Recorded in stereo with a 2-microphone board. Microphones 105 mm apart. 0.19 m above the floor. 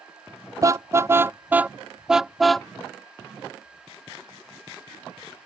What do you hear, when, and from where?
0.6 s a car horn: 30° right (ahead or behind); by 2.7 s 5° left (ahead or behind)